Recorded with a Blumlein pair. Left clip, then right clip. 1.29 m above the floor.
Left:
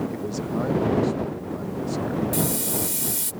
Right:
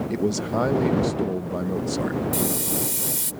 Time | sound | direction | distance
0.1 | a man speaking | 65° right | ?
2.3 | a hiss | 5° right | ?